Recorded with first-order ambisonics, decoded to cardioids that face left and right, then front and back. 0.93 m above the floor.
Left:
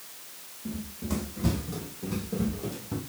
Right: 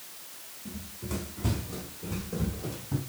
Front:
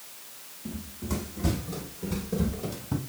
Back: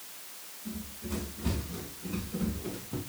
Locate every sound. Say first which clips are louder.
0.7 s running footsteps: left 4 dB, front 4 dB; 50° left, 3 m; by 3.0 s 10° left, 2.5 m